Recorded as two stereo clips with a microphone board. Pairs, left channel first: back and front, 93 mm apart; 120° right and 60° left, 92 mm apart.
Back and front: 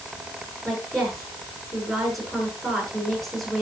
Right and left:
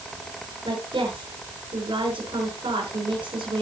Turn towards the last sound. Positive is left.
turn(degrees=90)